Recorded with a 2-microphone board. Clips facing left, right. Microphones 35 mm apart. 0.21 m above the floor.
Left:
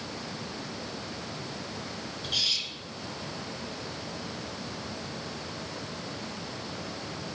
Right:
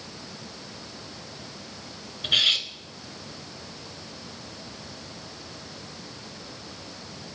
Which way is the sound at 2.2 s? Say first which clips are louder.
Right 8 dB; 50° right (ahead or behind).